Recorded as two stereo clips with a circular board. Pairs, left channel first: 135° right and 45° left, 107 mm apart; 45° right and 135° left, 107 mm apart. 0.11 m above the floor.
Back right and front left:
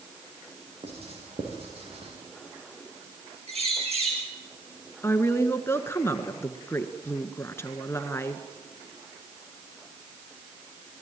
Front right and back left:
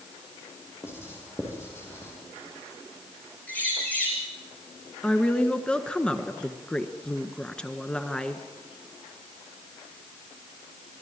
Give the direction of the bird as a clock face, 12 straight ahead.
11 o'clock.